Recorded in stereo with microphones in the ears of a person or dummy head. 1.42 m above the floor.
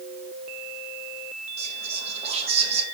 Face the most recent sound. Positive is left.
turn(degrees=-45)  # may be behind; listen again after turning